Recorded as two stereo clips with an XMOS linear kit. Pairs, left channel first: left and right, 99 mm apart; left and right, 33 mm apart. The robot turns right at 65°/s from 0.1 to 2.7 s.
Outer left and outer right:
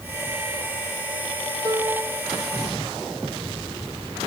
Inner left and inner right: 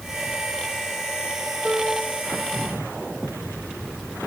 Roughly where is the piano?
Ahead right.